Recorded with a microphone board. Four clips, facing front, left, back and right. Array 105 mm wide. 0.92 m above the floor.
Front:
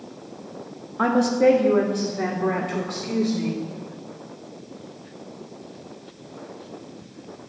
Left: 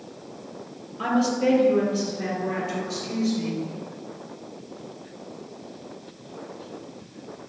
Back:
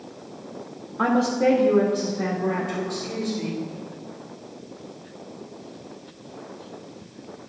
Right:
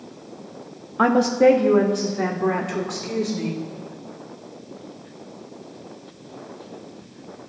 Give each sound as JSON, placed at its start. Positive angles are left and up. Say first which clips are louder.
{"t": 1.0, "sound": "a woman speaking", "louder": "right 7 dB, front 2 dB", "azimuth_deg": -85, "distance_m": 1.3}